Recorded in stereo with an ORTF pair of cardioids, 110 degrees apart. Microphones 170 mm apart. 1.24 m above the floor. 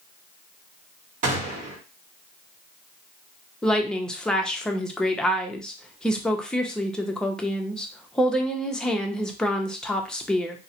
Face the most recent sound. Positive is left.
turn(degrees=5)